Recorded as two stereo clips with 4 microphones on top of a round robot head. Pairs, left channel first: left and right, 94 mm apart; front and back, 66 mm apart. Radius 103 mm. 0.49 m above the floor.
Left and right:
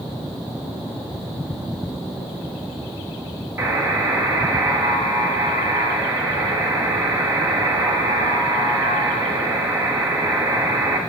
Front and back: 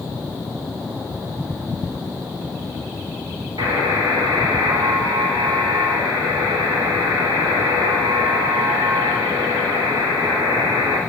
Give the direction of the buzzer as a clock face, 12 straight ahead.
5 o'clock.